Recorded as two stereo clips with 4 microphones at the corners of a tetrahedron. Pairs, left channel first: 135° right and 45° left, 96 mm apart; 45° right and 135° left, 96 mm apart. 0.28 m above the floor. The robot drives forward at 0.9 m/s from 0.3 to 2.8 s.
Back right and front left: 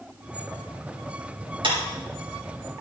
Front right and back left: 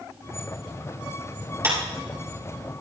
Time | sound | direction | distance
1.6 | a clap | 75° left | 4 m